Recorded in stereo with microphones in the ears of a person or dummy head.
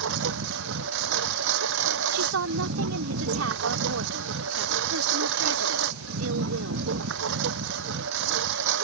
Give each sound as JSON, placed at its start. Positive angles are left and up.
{"t": 0.0, "sound": "a lawn mower", "side_deg": -75}
{"t": 2.1, "sound": "a woman speaking", "side_deg": -85}